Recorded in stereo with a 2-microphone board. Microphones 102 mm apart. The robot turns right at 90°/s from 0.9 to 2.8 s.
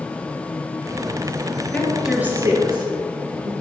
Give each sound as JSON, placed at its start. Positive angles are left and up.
{"t": 1.7, "sound": "a woman speaking", "side_deg": 15, "distance_m": 2.5}